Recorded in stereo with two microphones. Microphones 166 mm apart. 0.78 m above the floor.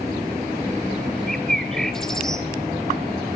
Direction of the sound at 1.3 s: 5° left (ahead or behind).